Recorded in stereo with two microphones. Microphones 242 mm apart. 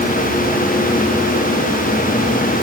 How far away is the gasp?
I don't hear a gasp.